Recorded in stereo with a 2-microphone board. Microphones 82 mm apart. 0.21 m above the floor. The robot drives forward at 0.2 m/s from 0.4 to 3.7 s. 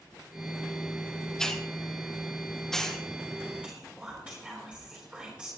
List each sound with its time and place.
1.4 s a hiss: 5° left (ahead or behind), 1.5 m
3.6 s whispering: 15° right (ahead or behind), 3.5 m